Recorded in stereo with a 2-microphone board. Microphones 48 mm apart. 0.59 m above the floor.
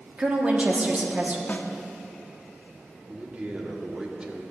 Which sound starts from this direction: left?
A snare drum, at 1.5 s.